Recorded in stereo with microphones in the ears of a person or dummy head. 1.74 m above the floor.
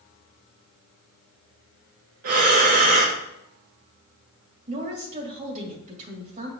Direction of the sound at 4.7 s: 40° right (ahead or behind).